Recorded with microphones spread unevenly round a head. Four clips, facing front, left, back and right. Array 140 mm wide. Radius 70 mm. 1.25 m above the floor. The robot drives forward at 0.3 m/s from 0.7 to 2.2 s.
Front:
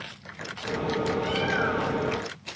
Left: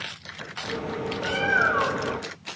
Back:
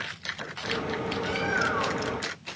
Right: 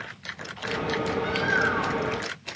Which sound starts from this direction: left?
A bird, at 1.2 s.